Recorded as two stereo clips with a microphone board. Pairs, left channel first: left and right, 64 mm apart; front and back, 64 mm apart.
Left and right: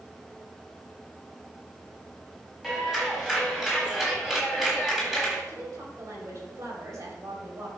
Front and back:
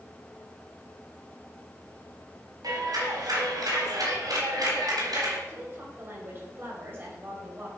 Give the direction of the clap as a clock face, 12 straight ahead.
6 o'clock.